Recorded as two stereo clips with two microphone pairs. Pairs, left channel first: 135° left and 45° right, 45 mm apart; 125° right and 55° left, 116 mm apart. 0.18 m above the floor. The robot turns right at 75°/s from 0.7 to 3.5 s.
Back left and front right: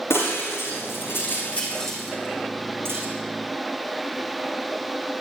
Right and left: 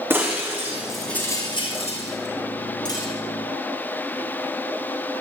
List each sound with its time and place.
0.1 s breaking glass: 125° left, 8 m; by 3.1 s 55° right, 8 m